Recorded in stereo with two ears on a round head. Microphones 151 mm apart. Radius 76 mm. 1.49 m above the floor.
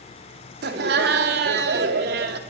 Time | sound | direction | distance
0.6 | laughter | 70° right (ahead or behind) | 3.5 m